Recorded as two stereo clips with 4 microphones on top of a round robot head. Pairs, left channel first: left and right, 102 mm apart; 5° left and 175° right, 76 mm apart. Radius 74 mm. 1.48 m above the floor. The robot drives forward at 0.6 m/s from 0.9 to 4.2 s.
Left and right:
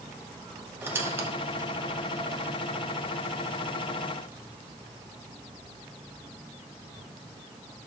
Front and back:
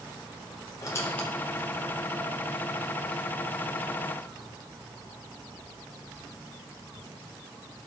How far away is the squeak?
About 0.7 m.